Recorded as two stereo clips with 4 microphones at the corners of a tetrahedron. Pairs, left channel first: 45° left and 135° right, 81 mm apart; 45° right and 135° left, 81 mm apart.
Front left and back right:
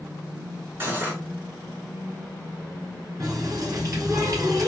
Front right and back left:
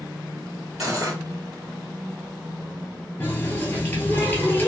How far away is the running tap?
About 1.3 m.